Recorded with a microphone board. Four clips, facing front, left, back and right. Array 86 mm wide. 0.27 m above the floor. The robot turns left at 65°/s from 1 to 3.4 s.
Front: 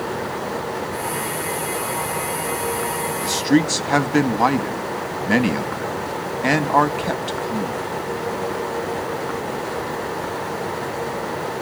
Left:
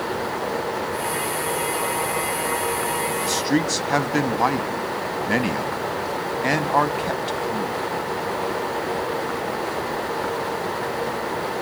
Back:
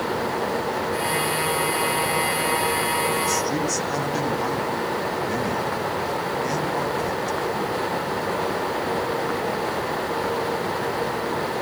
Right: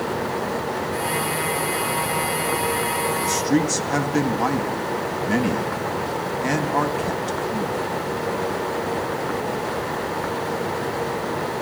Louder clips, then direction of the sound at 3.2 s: Right 1 dB, front 5 dB; 30° left.